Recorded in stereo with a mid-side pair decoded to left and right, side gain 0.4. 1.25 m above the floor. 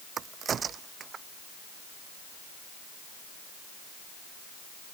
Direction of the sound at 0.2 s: 55° right.